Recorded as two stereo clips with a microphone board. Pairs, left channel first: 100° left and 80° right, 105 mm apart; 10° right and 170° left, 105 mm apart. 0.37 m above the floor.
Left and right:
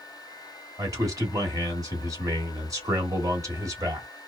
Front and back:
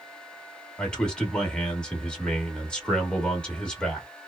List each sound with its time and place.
0.8 s a man speaking: 85° right, 1.2 m